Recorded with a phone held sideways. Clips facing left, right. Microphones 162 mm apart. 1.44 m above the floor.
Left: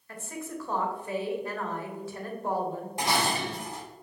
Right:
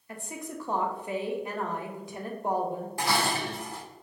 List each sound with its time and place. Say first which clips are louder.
0.1 s a woman speaking: left 1 dB; 15° right (ahead or behind), 0.8 m
3.0 s dishes clattering: left 1 dB; 20° left (ahead or behind), 0.7 m